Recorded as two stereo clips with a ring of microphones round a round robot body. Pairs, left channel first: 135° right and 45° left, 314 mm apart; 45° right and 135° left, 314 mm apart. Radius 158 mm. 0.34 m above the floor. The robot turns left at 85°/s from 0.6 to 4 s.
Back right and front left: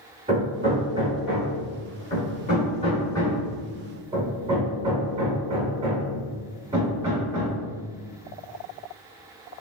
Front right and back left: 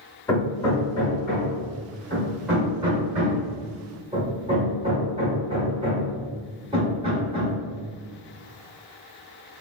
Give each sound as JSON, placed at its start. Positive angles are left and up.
{"t": 0.3, "sound": "hammering", "azimuth_deg": 20, "distance_m": 1.2}